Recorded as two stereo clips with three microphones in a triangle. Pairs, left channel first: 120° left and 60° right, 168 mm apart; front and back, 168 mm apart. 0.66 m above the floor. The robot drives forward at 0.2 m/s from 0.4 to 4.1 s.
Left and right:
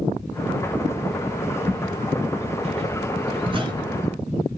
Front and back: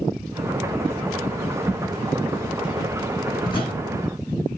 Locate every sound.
1.7 s footsteps: 115° right, 1.4 m; by 3.7 s 15° right, 0.7 m